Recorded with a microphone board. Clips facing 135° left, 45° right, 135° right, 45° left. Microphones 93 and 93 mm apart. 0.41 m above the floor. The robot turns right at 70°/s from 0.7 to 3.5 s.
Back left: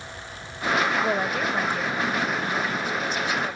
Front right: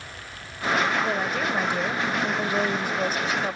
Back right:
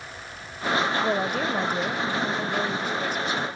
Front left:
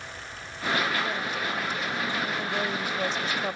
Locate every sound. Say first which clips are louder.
1.0 s a woman speaking: back left 1 dB, back right 6 dB; 160° right; by 3.6 s 15° left